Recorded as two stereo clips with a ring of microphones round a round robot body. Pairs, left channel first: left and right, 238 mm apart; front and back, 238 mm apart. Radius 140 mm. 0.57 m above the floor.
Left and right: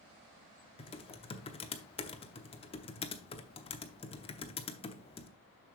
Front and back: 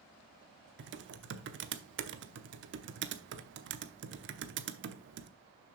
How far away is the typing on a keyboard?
About 0.8 m.